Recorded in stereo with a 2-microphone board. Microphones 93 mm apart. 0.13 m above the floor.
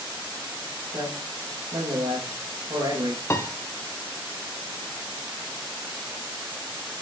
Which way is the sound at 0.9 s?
65° right (ahead or behind).